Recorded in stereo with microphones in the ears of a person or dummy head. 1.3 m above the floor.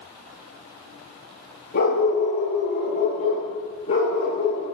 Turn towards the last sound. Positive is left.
turn(degrees=30)  # may be behind; listen again after turning